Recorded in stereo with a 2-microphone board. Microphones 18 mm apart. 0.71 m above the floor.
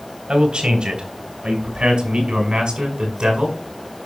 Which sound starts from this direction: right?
A man speaking, at 0.3 s.